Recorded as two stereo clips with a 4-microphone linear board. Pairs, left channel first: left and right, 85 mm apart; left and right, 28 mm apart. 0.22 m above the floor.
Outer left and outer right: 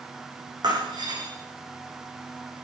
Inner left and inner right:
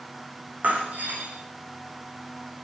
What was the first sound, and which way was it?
Breaking glass, 55° right (ahead or behind).